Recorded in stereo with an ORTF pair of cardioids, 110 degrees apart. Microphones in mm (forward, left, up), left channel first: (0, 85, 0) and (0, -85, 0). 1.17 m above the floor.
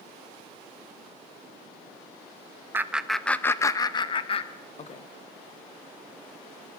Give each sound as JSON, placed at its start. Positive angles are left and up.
{"t": 2.7, "sound": "laughter", "azimuth_deg": -15, "distance_m": 0.9}